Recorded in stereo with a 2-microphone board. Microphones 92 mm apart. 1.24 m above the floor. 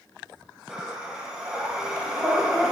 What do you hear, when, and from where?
0.7 s breathing: 10° right (ahead or behind), 1.4 m